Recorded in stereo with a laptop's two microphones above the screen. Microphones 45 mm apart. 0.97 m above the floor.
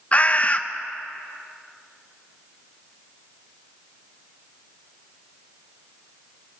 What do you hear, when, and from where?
0.1 s a bird: 30° left (ahead or behind), 0.6 m